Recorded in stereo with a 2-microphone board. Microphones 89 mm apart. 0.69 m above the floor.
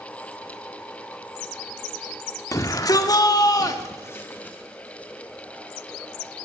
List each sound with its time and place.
2.5 s a shout: 40° left (ahead or behind), 1.9 m; by 4.6 s 20° left (ahead or behind), 1.7 m